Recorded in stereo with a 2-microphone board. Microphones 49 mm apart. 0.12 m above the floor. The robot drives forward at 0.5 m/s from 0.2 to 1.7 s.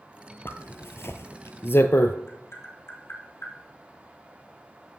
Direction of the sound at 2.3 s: 65° left (ahead or behind).